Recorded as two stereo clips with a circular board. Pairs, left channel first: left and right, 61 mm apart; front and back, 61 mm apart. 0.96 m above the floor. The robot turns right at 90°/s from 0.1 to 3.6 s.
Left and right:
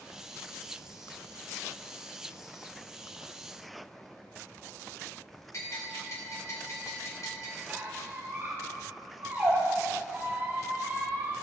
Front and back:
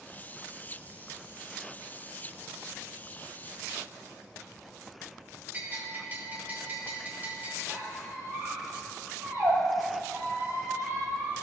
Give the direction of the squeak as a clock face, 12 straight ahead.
5 o'clock.